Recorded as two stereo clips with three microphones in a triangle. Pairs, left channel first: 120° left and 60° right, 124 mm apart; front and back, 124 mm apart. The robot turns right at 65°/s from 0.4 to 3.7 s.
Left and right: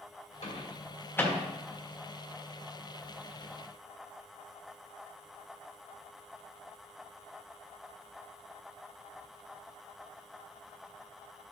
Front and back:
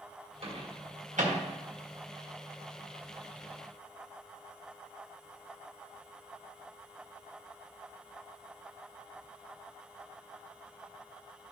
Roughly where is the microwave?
Behind left.